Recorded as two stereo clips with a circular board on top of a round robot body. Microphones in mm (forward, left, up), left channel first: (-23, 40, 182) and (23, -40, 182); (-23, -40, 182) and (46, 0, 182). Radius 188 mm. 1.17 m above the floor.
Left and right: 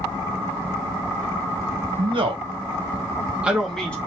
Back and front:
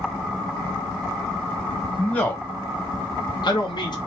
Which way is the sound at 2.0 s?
75° right.